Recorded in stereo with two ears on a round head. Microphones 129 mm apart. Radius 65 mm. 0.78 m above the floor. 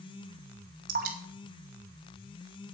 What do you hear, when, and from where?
0.9 s dripping: 65° right (ahead or behind), 2 m